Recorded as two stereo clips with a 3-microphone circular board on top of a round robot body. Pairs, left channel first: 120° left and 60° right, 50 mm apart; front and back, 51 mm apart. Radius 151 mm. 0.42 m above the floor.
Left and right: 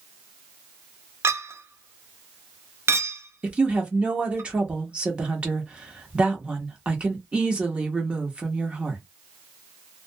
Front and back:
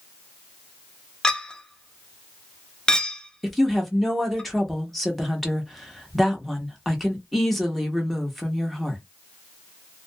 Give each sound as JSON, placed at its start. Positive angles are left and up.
{"t": 1.2, "sound": "a clink", "azimuth_deg": -75, "distance_m": 0.6}
{"t": 3.4, "sound": "a woman speaking", "azimuth_deg": -85, "distance_m": 1.2}